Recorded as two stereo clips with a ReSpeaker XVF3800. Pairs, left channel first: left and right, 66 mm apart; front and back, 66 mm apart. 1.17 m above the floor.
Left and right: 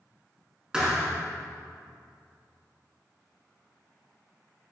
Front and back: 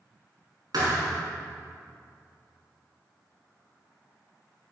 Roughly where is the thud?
Behind.